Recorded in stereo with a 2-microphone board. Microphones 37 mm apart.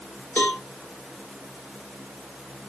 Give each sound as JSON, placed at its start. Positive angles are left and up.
{"t": 0.4, "sound": "a cowbell", "side_deg": 55, "distance_m": 1.2}